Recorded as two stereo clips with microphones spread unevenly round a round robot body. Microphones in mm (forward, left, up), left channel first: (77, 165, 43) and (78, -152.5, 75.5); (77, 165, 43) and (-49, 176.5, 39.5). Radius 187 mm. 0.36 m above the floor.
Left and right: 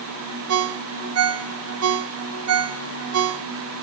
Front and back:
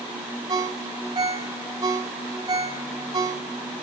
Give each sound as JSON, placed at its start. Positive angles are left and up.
{"t": 0.5, "sound": "a ringtone", "azimuth_deg": -130, "distance_m": 0.6}